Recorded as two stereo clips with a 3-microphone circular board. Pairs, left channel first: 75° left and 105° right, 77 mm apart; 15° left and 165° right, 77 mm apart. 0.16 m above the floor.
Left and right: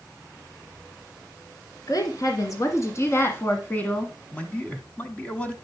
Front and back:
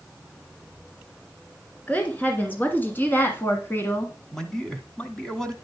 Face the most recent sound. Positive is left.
turn(degrees=75)